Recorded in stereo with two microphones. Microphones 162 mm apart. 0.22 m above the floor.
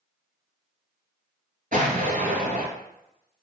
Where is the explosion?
55° right (ahead or behind), 1.8 m.